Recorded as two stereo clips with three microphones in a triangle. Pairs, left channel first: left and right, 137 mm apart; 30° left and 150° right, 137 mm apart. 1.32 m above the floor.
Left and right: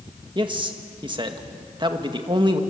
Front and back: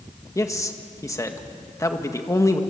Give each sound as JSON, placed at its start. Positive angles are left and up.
{"t": 0.3, "sound": "a man speaking", "azimuth_deg": -35, "distance_m": 1.8}